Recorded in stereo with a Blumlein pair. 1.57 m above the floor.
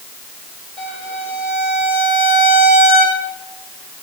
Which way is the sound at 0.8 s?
Straight ahead.